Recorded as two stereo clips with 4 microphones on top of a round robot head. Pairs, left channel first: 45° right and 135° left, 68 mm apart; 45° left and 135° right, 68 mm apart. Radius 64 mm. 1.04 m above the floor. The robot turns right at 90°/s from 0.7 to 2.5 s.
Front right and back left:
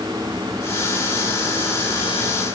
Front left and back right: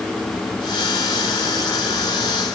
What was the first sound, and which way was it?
Only background noise.